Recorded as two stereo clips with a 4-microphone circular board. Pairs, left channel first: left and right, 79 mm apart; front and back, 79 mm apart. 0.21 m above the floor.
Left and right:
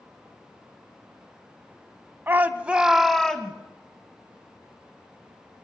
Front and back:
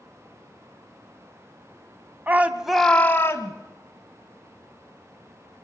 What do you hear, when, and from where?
2.3 s a shout: 135° right, 1.5 m; by 3.5 s 20° left, 1.6 m